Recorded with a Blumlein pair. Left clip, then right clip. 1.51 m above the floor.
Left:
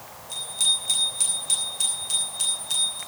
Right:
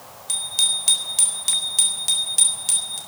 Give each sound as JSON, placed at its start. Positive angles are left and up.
{"t": 0.3, "sound": "a bicycle bell", "azimuth_deg": -40, "distance_m": 4.0}